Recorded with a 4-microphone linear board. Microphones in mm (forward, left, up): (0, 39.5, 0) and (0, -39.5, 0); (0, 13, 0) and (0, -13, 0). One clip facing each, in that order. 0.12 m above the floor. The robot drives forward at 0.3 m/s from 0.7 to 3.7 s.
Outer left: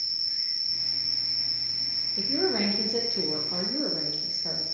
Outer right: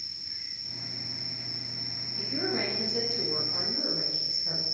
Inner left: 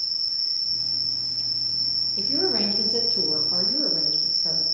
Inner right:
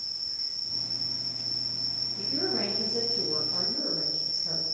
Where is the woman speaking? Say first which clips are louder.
Outer left 5 dB, inner left 5 dB; 55° left (ahead or behind), 4.5 m; by 4.6 s 60° left (ahead or behind), 4.5 m.